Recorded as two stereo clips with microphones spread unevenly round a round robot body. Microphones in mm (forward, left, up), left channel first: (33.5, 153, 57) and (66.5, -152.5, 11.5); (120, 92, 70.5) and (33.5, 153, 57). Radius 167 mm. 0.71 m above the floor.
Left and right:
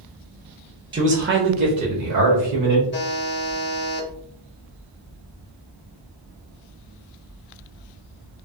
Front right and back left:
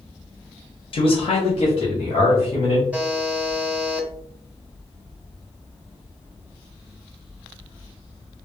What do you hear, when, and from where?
0.9 s a man speaking: 25° right, 0.6 m; by 2.8 s 80° right, 1.4 m
2.9 s a buzzer: 65° left, 0.6 m